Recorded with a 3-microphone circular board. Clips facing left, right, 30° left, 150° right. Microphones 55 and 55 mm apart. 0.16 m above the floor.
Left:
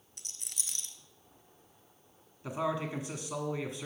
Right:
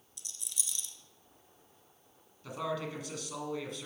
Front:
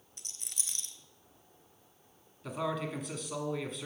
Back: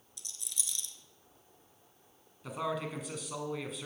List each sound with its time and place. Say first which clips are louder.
0.2 s a rattle: even, back 1 dB; 65° left, 0.8 m
2.4 s a man speaking: left 3 dB, front 1 dB; 125° left, 1.1 m